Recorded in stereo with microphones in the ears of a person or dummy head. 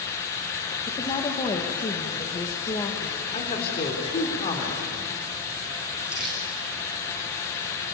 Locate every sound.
0.9 s a woman speaking: 25° left (ahead or behind), 1.9 m
3.3 s a man speaking: 35° left (ahead or behind), 3.5 m
6.1 s crumpling: 5° right (ahead or behind), 5.5 m